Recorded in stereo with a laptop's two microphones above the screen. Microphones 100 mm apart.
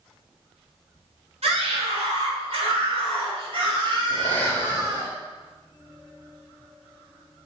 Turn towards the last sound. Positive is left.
turn(degrees=15)  # may be behind; listen again after turning